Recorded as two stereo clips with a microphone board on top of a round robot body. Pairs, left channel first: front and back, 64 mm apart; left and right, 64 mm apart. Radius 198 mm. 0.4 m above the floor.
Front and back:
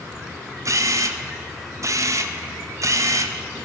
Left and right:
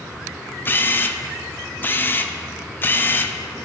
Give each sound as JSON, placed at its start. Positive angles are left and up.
{"t": 0.7, "sound": "a camera shutter", "azimuth_deg": 145, "distance_m": 0.5}